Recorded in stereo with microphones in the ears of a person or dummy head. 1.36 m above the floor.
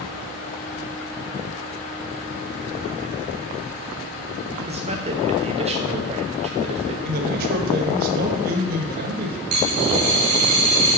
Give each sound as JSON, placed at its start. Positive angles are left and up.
{"t": 4.7, "sound": "a man speaking", "side_deg": -30, "distance_m": 0.8}
{"t": 7.0, "sound": "a man speaking", "side_deg": -50, "distance_m": 1.4}
{"t": 9.5, "sound": "a dropped coin", "side_deg": -30, "distance_m": 0.7}